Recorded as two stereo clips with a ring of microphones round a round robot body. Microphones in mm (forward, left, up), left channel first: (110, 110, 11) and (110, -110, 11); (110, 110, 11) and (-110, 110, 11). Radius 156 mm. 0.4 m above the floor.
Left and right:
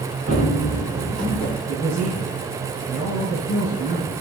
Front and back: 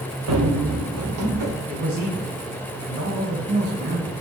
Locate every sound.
0.3 s running footsteps: 155° right, 1.8 m; by 1.5 s 175° left, 3 m
1.7 s a man speaking: 150° left, 2.5 m